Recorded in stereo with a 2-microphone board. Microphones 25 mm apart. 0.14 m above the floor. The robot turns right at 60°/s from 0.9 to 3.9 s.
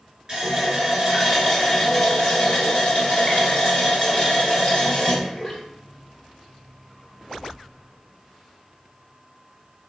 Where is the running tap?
40° right, 1.5 m; by 5.6 s 140° left, 1.5 m.